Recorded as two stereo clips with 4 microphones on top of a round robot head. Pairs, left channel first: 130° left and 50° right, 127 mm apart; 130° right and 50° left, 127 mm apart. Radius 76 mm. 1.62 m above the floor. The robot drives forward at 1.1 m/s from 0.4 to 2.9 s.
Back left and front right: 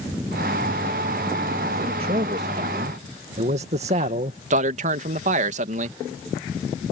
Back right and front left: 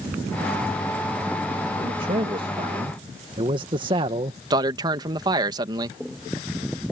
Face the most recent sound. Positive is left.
turn(degrees=-15)